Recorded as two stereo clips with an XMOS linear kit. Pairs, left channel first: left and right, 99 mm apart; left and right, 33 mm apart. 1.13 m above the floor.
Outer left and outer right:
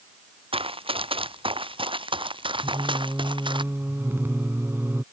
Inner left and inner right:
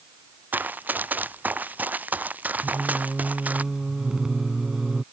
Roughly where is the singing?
Right.